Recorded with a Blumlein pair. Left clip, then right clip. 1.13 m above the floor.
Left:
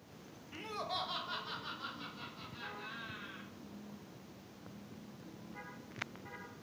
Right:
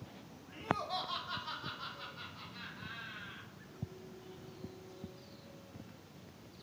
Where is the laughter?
15° left, 0.5 m; by 3.5 s 15° right, 2 m.